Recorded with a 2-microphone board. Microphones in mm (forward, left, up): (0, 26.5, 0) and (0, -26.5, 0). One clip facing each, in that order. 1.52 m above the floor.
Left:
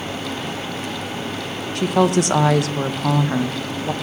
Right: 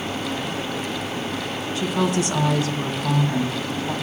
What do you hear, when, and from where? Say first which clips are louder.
1.8 s a woman speaking: left 6 dB; 60° left (ahead or behind), 1.3 m